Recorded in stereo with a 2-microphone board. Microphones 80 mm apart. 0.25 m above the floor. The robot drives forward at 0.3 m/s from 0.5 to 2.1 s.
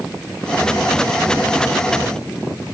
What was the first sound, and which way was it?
Only background noise.